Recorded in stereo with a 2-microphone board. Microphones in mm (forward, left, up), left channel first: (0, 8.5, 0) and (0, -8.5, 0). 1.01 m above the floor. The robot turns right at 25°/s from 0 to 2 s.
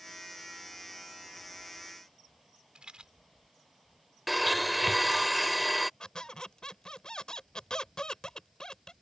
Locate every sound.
2.8 s a rattle: 70° right (ahead or behind)
4.3 s a blender: 5° right (ahead or behind)
6.0 s a squeak: 55° left (ahead or behind)